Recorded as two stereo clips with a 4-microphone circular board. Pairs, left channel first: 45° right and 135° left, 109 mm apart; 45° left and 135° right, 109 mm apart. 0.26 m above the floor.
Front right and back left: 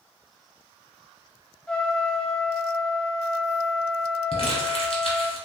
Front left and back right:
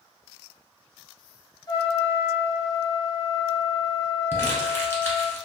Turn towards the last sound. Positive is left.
turn(degrees=-25)